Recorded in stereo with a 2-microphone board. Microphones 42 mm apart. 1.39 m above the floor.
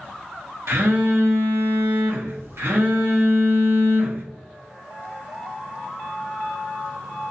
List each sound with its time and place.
0.7 s a phone buzzing: 70° right (ahead or behind), 1.0 m